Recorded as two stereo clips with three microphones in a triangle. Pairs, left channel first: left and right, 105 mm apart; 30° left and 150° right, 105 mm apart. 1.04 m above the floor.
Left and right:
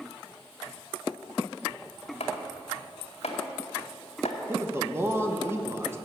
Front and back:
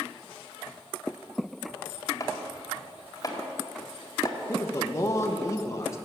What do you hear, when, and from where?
2.2 s chopping: 85° left, 2.0 m
4.5 s a man speaking: 25° right, 1.1 m